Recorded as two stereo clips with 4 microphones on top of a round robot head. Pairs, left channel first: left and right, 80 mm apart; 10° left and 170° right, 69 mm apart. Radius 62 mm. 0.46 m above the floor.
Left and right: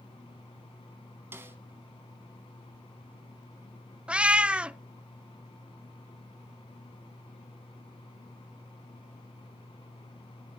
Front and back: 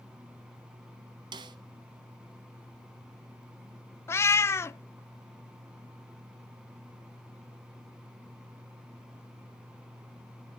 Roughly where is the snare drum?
Behind.